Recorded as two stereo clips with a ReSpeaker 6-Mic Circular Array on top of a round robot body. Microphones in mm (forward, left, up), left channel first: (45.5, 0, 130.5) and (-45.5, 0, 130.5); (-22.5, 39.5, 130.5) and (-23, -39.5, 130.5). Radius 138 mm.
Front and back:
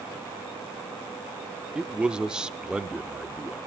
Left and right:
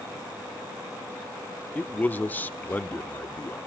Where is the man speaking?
110° left, 0.9 m.